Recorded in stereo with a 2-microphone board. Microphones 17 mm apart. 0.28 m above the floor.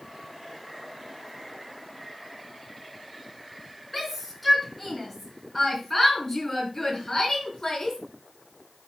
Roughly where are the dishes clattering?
I don't hear dishes clattering.